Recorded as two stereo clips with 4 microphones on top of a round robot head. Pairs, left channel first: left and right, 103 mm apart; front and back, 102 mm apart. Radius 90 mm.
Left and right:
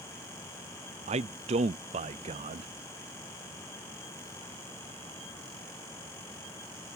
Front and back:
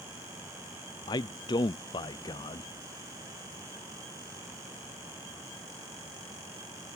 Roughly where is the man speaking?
Ahead right.